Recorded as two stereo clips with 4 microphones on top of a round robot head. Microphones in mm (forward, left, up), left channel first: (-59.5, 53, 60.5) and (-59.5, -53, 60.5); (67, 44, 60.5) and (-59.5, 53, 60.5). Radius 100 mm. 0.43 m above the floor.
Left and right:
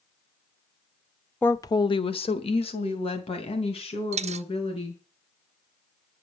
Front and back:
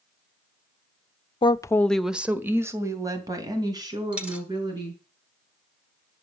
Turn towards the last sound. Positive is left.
turn(degrees=-100)